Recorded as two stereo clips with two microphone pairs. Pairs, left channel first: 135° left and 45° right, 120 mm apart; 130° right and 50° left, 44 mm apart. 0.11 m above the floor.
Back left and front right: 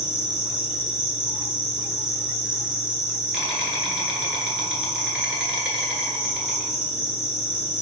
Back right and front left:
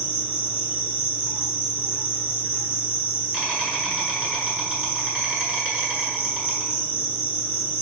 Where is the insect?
25° left, 1.1 m.